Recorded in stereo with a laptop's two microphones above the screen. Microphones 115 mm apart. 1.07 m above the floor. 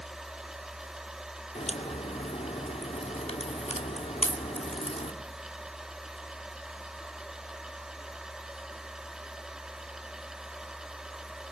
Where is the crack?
85° left, 2.5 m.